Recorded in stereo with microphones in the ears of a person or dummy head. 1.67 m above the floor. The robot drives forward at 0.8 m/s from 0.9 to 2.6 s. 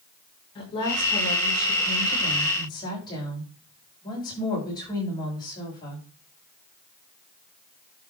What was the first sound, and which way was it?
A woman speaking, 25° left (ahead or behind).